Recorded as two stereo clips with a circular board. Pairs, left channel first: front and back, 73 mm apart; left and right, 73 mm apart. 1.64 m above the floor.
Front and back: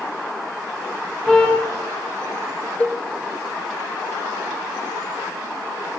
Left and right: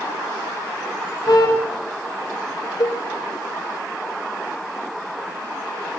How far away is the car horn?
About 6 m.